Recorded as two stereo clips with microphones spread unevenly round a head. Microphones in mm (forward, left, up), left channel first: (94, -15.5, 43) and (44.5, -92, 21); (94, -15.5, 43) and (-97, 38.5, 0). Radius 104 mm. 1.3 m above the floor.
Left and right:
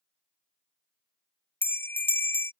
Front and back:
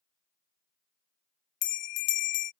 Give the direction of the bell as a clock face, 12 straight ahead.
12 o'clock.